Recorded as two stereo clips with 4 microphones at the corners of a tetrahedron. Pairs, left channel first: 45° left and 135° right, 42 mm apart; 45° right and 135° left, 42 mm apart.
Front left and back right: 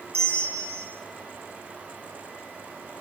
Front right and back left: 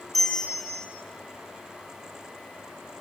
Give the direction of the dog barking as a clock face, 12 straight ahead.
No dog barking in this recording.